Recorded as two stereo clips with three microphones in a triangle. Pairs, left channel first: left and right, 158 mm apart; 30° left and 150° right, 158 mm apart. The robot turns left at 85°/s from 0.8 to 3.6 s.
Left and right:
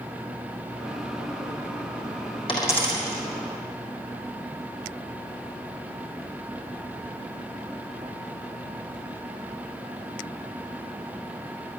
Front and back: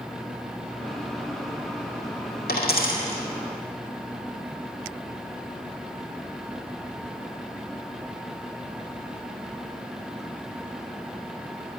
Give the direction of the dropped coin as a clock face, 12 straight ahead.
11 o'clock.